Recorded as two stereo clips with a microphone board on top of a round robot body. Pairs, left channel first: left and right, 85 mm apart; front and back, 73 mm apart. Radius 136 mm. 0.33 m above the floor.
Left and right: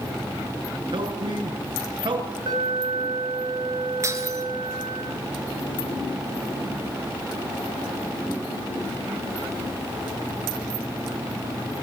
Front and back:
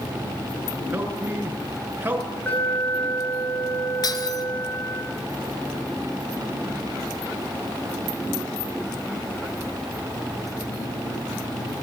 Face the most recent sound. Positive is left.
turn(degrees=-35)